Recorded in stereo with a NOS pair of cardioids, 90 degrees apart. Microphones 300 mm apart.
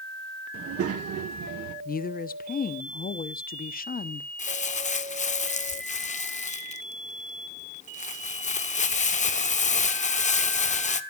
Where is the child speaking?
45° right, 1.5 m; by 1.8 s 70° right, 1.5 m.